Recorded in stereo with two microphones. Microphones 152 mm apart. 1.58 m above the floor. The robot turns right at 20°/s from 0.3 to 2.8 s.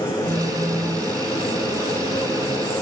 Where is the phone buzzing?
30° right (ahead or behind); by 1.1 s 10° right (ahead or behind).